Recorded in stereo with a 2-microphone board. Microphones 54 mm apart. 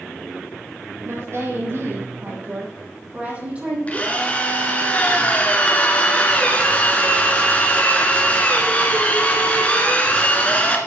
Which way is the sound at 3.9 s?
25° left (ahead or behind).